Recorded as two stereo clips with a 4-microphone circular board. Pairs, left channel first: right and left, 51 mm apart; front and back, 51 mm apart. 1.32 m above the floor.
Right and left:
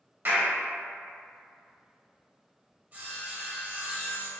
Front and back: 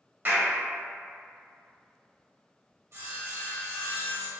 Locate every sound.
0.2 s a clap: 130° left, 1.0 m
2.9 s sawing: 145° left, 1.0 m